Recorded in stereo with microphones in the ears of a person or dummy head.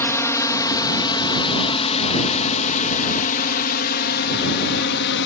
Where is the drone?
20° left (ahead or behind); by 5.3 s 65° left (ahead or behind).